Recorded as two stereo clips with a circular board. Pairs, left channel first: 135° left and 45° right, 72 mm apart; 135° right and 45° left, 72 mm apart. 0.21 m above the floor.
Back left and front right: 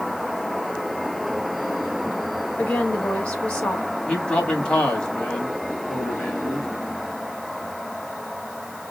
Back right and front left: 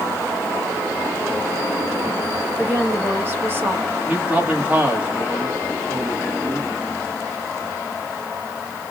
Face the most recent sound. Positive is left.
turn(degrees=75)